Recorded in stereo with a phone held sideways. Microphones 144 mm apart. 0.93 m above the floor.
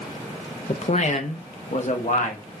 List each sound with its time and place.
0.7 s a man speaking: 45° left (ahead or behind), 0.5 m; by 2.4 s 60° left (ahead or behind), 1.3 m